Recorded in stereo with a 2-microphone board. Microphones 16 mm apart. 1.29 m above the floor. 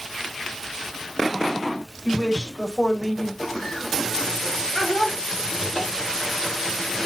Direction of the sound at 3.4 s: 35° left (ahead or behind).